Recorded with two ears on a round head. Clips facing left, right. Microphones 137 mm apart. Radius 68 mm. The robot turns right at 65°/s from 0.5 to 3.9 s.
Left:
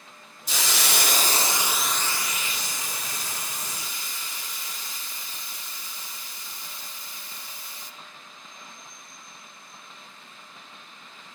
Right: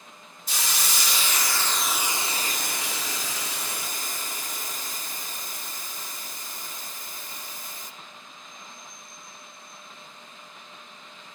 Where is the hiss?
95° left, 1.0 m; by 7.9 s 45° right, 1.0 m.